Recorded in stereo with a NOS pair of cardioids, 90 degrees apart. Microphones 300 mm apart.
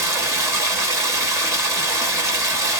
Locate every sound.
0.0 s running water: 10° right, 1.1 m